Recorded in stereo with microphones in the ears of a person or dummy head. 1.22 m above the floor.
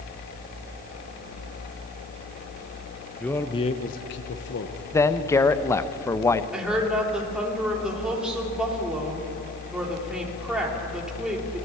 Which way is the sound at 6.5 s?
5° right (ahead or behind).